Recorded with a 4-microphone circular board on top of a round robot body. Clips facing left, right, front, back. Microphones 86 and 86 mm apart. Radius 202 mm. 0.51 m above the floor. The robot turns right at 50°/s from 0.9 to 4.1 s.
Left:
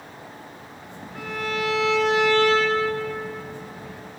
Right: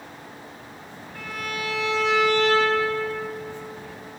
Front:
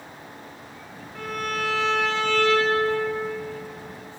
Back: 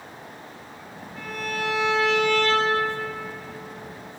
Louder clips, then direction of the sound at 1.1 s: Left 4 dB, front 2 dB; 10° left.